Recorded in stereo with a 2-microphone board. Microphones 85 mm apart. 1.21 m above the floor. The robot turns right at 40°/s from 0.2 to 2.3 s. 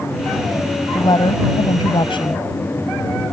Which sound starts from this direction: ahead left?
A woman speaking, at 0.9 s.